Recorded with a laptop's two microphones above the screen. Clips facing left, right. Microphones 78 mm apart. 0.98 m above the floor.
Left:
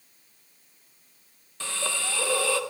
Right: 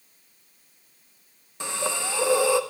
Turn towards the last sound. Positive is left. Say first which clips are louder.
# right 3 dB
turn(degrees=-20)  # may be behind; listen again after turning